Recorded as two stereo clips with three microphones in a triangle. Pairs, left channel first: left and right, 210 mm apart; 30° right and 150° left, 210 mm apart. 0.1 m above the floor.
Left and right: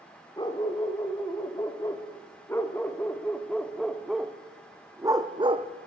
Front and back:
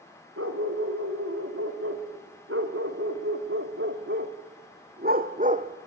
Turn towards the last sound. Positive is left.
turn(degrees=-150)